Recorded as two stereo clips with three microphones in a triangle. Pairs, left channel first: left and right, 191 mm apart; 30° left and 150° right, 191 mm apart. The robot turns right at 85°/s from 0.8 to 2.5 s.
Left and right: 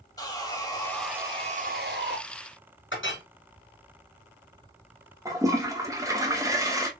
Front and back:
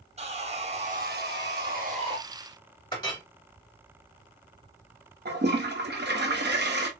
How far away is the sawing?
About 1.1 m.